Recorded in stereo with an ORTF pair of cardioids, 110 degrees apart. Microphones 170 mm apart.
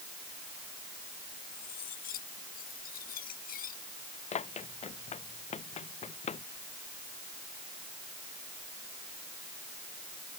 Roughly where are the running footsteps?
Ahead left.